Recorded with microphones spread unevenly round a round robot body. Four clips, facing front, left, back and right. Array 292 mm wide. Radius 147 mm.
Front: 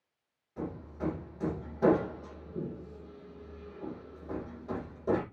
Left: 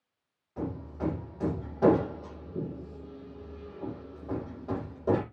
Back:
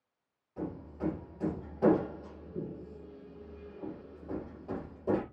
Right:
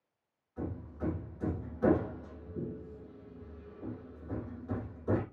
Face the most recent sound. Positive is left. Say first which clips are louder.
# left 5 dB, even
turn(degrees=80)